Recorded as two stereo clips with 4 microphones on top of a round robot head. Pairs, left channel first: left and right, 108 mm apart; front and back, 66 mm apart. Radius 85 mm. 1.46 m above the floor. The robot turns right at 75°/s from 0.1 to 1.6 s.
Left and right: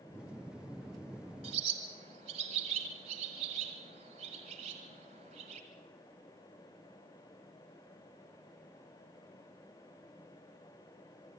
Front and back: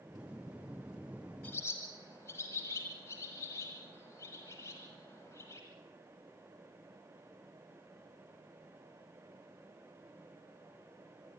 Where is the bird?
75° right, 1.5 m; by 5.6 s 65° right, 1.5 m.